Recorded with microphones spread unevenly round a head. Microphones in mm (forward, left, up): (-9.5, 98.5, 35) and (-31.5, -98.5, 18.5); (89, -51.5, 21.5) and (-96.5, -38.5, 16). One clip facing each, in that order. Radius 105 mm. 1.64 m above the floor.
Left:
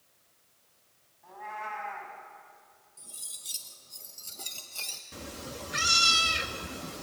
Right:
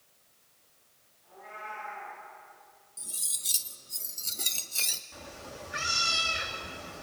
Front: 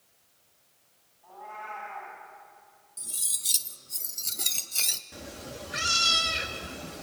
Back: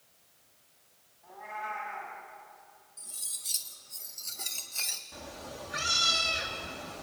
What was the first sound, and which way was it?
A cat meowing, 100° left.